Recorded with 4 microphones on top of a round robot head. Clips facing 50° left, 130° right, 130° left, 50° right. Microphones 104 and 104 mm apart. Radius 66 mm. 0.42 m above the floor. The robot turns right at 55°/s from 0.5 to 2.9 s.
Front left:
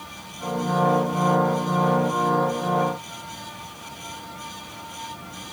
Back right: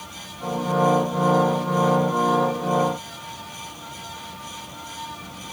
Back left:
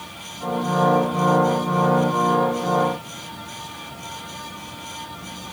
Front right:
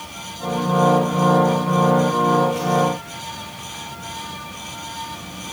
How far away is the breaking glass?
I don't hear breaking glass.